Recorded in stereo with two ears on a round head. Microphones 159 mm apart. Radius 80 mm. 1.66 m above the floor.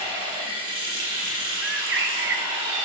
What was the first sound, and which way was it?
Running water, 30° right (ahead or behind).